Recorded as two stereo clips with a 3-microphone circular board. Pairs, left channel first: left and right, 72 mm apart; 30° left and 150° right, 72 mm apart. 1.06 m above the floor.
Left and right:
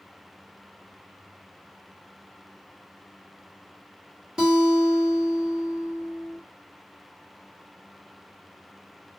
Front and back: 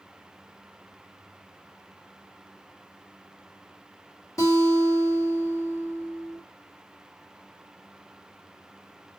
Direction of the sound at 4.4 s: 10° right.